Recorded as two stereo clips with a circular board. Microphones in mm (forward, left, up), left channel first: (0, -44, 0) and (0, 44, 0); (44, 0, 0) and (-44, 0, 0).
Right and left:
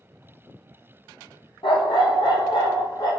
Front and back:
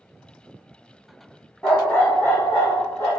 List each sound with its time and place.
1.6 s a dog barking: 75° right, 1.8 m; by 3.1 s 55° right, 2.5 m